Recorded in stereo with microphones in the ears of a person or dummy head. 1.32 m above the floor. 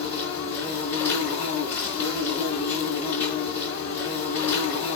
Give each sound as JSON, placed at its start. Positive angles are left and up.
{"t": 0.0, "sound": "an insect", "side_deg": 10, "distance_m": 4.5}